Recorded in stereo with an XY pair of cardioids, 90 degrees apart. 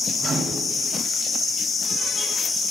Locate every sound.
0.2 s a microwave: 50° right, 2.5 m